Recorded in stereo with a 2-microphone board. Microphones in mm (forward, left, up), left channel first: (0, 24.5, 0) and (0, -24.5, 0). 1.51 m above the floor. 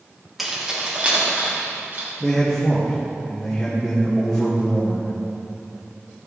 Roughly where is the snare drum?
No snare drum in this recording.